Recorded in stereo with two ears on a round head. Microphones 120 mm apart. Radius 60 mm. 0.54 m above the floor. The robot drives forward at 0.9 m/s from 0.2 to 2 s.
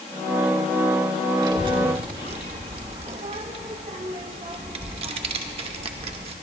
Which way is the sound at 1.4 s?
35° right (ahead or behind).